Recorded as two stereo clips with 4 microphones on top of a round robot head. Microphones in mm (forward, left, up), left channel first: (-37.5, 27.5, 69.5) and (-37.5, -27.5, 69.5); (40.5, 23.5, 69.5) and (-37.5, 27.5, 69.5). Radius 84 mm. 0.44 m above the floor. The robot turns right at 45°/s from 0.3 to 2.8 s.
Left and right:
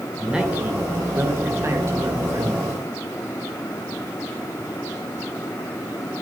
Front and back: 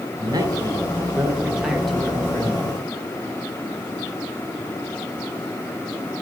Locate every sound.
0.2 s a man speaking: 160° right, 2 m; by 2.6 s 55° right, 2 m